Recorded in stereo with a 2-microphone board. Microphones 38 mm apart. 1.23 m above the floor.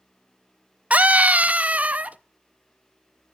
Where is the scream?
40° right (ahead or behind), 0.7 m.